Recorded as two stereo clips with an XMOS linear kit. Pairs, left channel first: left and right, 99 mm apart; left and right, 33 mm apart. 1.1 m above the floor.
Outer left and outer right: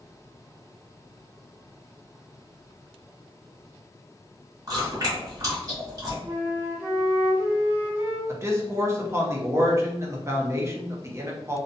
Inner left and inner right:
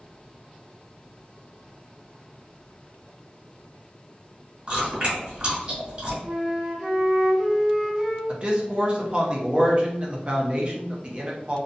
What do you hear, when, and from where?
4.7 s chewing: 40° right (ahead or behind), 1.2 m
6.2 s a flute: 20° right (ahead or behind), 0.8 m
8.3 s a man speaking: 30° right (ahead or behind), 0.6 m